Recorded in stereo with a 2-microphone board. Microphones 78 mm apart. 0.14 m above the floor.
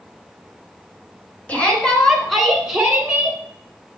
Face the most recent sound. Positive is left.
turn(degrees=-20)  # may be behind; listen again after turning